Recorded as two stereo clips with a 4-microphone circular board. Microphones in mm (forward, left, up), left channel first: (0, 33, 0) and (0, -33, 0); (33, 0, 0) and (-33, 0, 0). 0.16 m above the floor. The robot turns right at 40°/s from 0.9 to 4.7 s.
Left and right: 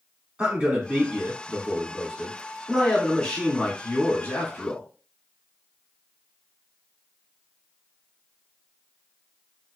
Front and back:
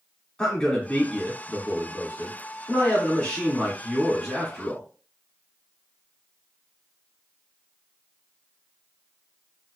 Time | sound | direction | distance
0.4 | a man speaking | 45° right | 1.6 m